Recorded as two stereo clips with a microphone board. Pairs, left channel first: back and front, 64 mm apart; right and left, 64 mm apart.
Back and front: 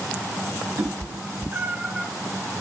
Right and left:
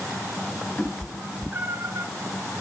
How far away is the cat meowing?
About 0.9 m.